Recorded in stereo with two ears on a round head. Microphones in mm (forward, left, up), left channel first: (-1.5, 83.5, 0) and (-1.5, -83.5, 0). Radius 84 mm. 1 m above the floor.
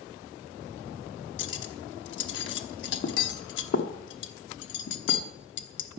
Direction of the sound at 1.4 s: 65° left (ahead or behind).